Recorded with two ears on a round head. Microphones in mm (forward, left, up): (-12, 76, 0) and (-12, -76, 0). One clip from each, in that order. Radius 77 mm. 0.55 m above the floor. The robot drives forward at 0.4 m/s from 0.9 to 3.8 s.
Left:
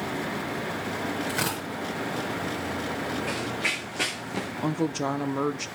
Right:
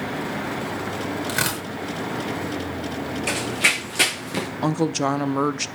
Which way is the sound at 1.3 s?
25° right (ahead or behind).